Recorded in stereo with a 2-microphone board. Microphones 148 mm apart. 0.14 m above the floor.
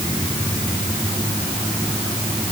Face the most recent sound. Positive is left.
No sound to turn to.